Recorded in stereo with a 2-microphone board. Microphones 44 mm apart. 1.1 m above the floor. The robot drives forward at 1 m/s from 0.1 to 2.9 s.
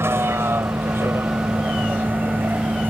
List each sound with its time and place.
0.0 s a vehicle: 85° right; by 2.9 s 50° right (ahead or behind)